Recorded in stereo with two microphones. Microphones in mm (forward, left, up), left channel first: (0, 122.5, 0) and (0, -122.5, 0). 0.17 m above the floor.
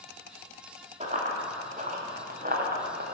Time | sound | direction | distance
1.0 | running footsteps | 25° right (ahead or behind) | 3 m